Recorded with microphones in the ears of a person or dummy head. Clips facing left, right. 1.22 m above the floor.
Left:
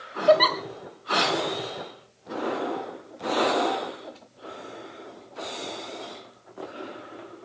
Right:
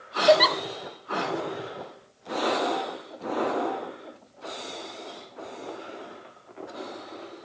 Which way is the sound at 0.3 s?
5° right (ahead or behind).